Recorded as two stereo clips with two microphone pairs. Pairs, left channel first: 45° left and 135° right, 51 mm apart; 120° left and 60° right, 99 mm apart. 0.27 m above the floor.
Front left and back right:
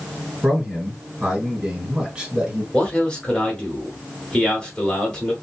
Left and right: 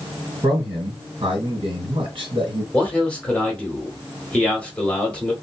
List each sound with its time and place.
0.4 s a man speaking: 65° right, 1.9 m
2.7 s a man speaking: 70° left, 1.4 m